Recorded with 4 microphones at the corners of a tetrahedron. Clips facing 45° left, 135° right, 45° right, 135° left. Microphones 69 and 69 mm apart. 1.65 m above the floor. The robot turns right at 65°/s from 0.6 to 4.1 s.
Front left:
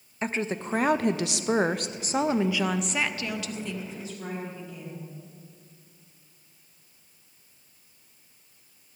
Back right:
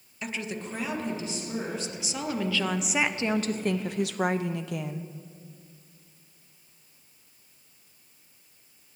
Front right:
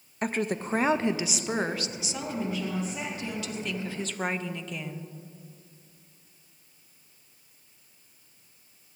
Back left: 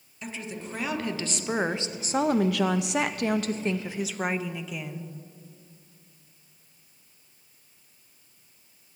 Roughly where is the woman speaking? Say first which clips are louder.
Front left 5 dB, front right 8 dB; ahead.